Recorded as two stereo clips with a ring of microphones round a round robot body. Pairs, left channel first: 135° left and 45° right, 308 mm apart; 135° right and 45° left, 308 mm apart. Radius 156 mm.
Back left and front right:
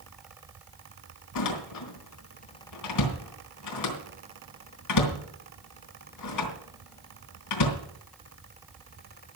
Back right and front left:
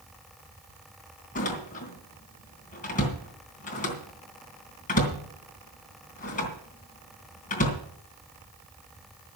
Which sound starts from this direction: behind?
A door slam, at 1.4 s.